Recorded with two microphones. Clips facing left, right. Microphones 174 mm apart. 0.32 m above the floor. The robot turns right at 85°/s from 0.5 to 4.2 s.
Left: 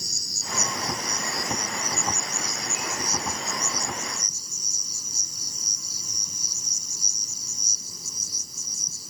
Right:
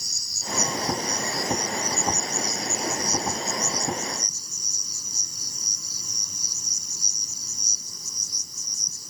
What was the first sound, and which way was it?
An insect, 55° left.